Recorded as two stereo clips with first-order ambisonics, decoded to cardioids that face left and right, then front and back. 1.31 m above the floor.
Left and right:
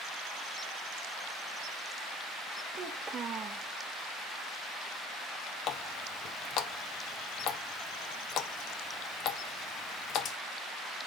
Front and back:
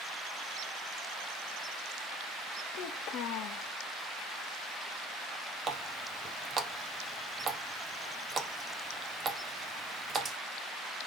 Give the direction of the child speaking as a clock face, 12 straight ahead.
1 o'clock.